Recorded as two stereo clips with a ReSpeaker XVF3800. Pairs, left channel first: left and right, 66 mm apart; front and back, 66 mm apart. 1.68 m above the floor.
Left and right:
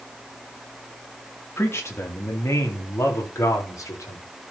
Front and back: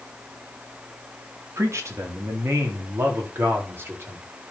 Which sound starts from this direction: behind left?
A man speaking, at 1.6 s.